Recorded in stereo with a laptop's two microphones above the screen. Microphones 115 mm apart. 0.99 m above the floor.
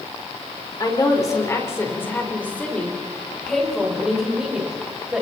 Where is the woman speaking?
35° left (ahead or behind), 3 m; by 5.2 s 10° right (ahead or behind), 5 m.